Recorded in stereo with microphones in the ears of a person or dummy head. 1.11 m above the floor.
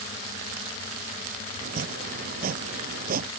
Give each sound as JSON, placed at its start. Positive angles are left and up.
{"t": 1.6, "sound": "chopping", "side_deg": -50}